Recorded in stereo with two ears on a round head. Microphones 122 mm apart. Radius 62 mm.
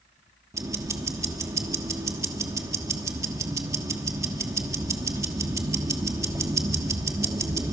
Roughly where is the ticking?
Right.